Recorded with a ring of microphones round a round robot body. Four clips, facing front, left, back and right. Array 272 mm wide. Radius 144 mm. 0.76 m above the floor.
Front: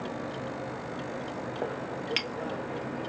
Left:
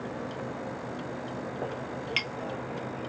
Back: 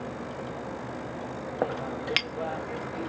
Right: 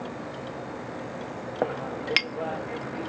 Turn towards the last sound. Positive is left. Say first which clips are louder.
# right 6 dB, back 7 dB
turn(degrees=-125)